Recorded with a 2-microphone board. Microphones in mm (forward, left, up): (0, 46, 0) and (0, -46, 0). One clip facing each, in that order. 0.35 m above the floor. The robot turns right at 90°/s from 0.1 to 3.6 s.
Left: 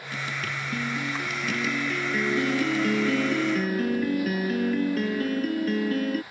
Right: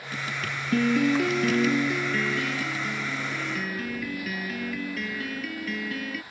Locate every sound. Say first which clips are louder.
0.7 s a piano: right 11 dB; 125° right; by 6.2 s 135° left